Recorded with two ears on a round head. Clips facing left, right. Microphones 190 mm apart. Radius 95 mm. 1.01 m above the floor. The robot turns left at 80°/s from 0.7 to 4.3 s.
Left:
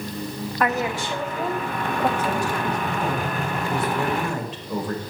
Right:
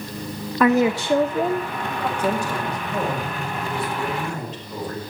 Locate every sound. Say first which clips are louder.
0.6 s a woman speaking: right 7 dB; 100° right, 0.6 m; by 2.1 s 150° left, 0.6 m
2.2 s a woman speaking: right 1 dB; 70° right, 5 m; by 5.0 s 120° left, 5 m